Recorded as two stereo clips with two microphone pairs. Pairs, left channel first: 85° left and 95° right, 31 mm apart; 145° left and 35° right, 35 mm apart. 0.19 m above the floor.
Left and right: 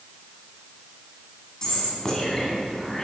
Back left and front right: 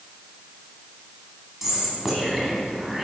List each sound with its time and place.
1.6 s whispering: 40° left, 1.4 m